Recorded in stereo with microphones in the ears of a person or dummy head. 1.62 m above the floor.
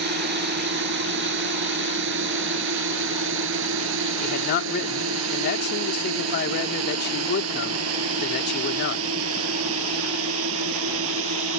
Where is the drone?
50° right (ahead or behind); by 11.6 s 85° right.